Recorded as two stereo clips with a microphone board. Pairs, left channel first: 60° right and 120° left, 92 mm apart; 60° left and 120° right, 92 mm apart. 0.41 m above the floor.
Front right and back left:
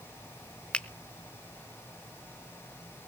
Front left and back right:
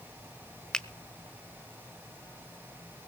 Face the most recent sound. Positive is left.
turn(degrees=-5)